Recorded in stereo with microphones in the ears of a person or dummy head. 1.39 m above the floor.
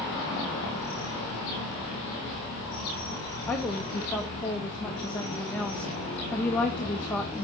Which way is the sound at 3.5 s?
5° left (ahead or behind).